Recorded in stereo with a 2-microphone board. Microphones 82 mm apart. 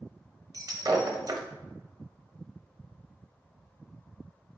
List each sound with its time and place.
0.5 s breaking glass: 50° right (ahead or behind), 0.5 m